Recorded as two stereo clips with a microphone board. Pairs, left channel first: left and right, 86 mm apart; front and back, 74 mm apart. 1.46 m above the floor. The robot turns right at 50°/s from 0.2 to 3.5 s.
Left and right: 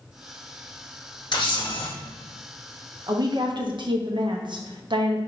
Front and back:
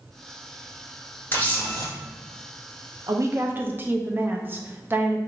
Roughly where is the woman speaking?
Behind right.